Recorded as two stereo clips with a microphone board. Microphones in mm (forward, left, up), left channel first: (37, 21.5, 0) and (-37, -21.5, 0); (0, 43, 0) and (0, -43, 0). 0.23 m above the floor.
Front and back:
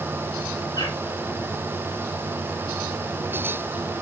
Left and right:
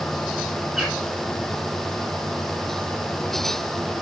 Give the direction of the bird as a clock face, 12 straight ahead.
12 o'clock.